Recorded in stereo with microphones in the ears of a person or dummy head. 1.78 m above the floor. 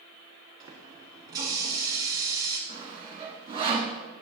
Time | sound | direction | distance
0.6 | a running tap | 20° right (ahead or behind) | 1.4 m
2.7 | sawing | 30° right (ahead or behind) | 1.2 m